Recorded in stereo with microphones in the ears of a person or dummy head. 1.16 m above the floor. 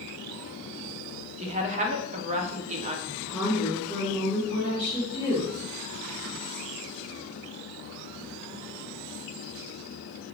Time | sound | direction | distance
1.4 | a woman speaking | 35° right (ahead or behind) | 0.5 m
3.1 | a woman speaking | 20° right (ahead or behind) | 1.1 m